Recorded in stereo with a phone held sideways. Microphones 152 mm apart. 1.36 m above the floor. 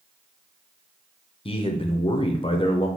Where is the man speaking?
35° left (ahead or behind), 0.5 m.